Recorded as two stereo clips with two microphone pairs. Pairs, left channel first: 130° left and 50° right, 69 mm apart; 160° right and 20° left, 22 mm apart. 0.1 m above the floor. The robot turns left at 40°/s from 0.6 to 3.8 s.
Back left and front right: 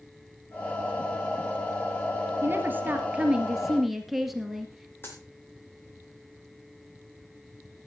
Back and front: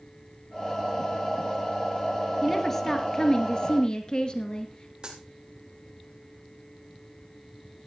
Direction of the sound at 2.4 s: 80° right.